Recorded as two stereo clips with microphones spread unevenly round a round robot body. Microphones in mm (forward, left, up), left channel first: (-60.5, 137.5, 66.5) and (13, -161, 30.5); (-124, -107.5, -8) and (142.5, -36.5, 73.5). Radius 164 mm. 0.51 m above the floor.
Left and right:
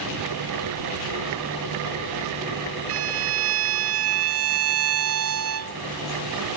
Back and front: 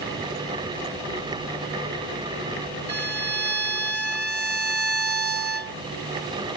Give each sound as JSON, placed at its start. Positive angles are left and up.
{"t": 2.9, "sound": "a violin", "azimuth_deg": -45}